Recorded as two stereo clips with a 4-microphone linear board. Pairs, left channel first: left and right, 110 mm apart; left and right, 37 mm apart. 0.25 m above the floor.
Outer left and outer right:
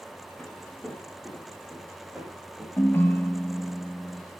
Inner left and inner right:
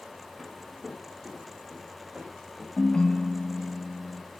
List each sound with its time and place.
0.4 s footsteps: 10° left (ahead or behind), 1.6 m; by 3.8 s 15° right (ahead or behind), 3 m
2.8 s a ringtone: 20° left (ahead or behind), 0.7 m